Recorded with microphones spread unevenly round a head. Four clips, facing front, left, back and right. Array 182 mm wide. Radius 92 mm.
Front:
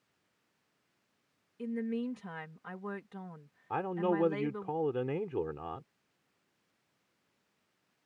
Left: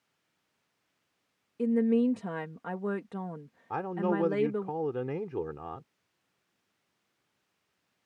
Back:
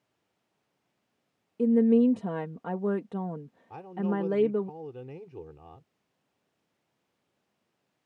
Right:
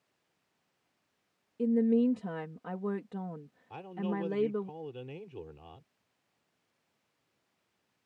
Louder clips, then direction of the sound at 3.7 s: Left 6 dB, even; 50° left.